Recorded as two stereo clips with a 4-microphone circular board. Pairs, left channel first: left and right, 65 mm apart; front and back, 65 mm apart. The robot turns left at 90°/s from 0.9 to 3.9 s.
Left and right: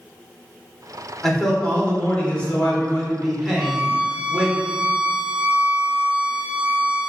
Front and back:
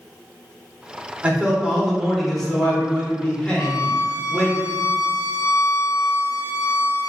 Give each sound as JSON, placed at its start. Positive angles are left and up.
{"t": 1.2, "sound": "a man speaking", "azimuth_deg": 175, "distance_m": 0.9}
{"t": 3.6, "sound": "a violin", "azimuth_deg": 5, "distance_m": 0.8}